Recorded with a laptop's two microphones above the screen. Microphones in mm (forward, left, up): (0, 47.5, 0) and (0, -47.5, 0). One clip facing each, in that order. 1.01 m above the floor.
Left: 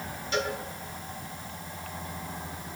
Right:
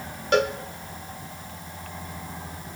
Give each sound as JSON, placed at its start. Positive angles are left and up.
{"t": 0.3, "sound": "a cowbell", "side_deg": -60, "distance_m": 1.6}